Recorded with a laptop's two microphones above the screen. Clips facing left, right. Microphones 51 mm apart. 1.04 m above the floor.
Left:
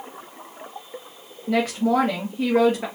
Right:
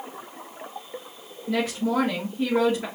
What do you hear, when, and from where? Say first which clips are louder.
1.5 s a woman speaking: left 4 dB; 60° left (ahead or behind), 1.6 m